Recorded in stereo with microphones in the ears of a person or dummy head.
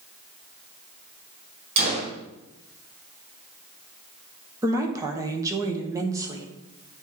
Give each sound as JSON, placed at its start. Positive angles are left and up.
{"t": 1.8, "sound": "a gunshot", "side_deg": -35, "distance_m": 2.0}
{"t": 4.6, "sound": "a woman speaking", "side_deg": -15, "distance_m": 1.1}